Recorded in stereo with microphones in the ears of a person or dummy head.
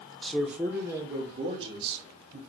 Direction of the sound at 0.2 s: 5° left (ahead or behind).